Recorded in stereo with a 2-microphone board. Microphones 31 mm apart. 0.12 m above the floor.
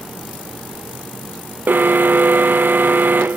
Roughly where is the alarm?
Right.